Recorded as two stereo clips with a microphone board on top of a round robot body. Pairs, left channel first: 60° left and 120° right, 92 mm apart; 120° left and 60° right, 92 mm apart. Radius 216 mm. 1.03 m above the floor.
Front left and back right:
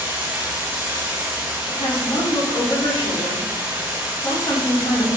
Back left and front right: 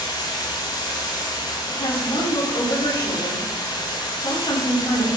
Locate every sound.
0.0 s running water: 165° left, 0.9 m
1.7 s a woman speaking: 100° left, 3.5 m